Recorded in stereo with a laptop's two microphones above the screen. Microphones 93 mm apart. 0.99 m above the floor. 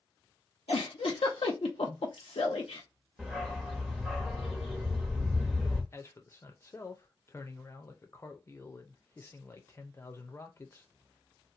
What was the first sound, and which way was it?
A giggle, 85° left.